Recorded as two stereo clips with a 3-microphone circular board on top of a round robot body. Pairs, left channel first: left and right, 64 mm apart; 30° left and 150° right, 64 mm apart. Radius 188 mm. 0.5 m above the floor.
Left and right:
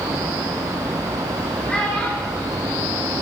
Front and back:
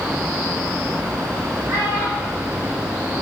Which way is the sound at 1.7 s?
160° left.